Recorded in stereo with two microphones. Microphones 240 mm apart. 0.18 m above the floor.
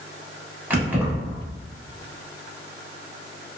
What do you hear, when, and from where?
0.7 s keys jangling: 10° right (ahead or behind), 0.8 m